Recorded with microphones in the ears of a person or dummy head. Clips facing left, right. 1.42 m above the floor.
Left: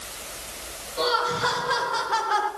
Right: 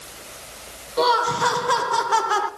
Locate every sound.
1.0 s laughter: 60° right (ahead or behind), 1.3 m; by 2.5 s 55° right (ahead or behind), 0.5 m